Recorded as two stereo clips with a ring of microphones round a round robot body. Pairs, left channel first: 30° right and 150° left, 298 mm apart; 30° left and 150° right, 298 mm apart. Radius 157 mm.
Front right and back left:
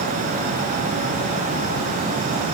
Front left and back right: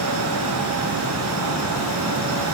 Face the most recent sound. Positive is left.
No sound to turn to.